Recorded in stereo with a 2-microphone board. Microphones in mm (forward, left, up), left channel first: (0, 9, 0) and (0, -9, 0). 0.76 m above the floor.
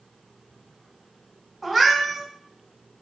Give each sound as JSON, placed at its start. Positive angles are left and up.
{"t": 1.6, "sound": "a cat meowing", "side_deg": 5, "distance_m": 1.1}